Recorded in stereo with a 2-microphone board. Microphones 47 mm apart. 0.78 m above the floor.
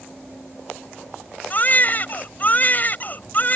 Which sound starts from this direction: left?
A baby crying, at 1.5 s.